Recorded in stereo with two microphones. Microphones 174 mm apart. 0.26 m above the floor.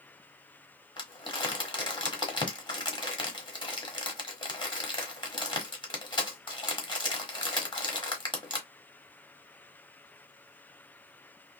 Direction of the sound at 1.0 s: 25° left (ahead or behind).